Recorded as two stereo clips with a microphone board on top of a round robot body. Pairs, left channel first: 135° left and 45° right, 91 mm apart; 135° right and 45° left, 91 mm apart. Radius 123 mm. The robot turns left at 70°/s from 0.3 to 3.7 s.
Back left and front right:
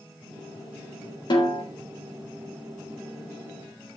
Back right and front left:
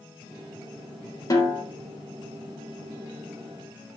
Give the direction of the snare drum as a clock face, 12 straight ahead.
6 o'clock.